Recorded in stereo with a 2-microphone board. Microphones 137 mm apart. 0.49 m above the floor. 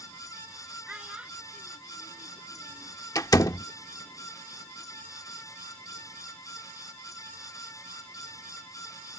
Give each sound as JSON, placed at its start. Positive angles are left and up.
{"t": 0.9, "sound": "a child speaking", "side_deg": -5}
{"t": 3.1, "sound": "a door slam", "side_deg": 25}